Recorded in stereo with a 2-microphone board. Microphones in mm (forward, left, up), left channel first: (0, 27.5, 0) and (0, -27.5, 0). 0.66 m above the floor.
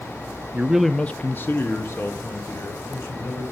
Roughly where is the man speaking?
Right.